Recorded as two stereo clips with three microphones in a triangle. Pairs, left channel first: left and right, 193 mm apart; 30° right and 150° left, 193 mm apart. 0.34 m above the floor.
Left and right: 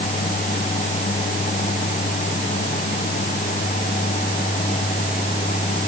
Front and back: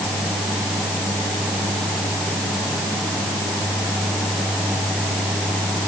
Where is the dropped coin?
No dropped coin in this recording.